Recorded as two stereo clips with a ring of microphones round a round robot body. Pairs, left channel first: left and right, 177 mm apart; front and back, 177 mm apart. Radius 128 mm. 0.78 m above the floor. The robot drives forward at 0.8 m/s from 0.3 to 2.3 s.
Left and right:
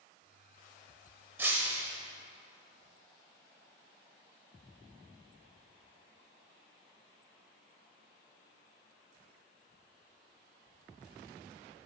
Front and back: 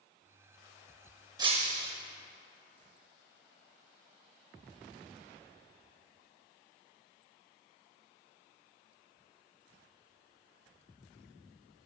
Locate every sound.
1.4 s breaking glass: 150° right, 0.5 m; by 1.9 s 170° right, 0.8 m